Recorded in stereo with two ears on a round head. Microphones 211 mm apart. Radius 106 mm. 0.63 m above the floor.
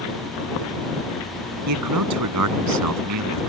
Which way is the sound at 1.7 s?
80° right.